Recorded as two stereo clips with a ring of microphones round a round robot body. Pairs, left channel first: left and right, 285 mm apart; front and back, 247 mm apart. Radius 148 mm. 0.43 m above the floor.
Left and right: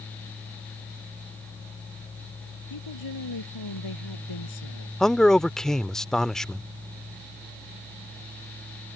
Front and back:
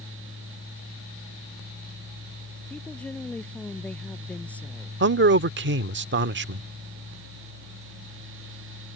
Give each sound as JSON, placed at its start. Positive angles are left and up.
{"t": 2.7, "sound": "a woman speaking", "azimuth_deg": 85}
{"t": 5.0, "sound": "a man speaking", "azimuth_deg": 175}